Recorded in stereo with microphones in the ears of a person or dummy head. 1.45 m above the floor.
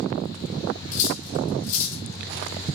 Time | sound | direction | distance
0.9 | cutlery clinking | 45° left (ahead or behind) | 2 m